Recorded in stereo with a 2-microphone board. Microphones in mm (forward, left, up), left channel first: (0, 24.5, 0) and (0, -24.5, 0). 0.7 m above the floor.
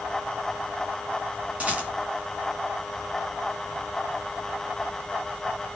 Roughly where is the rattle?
Right.